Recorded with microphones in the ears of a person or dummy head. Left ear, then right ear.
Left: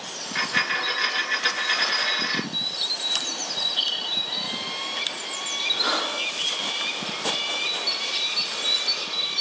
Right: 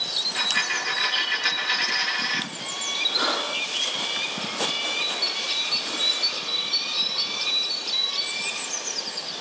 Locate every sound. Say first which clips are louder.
0.3 s a dropped coin: left 4 dB; 15° left (ahead or behind), 4 m